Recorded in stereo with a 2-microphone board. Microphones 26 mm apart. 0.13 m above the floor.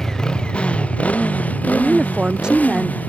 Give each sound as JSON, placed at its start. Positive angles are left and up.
{"t": 0.0, "sound": "a motorcycle", "side_deg": 20}
{"t": 1.6, "sound": "a woman speaking", "side_deg": -30}